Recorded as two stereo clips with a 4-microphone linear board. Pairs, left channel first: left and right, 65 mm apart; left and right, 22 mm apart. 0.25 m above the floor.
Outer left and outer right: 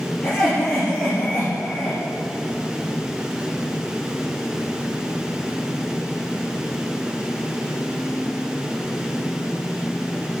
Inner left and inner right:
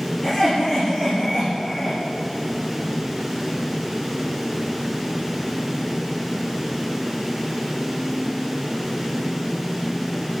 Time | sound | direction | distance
0.2 | laughter | 15° left (ahead or behind) | 4.5 m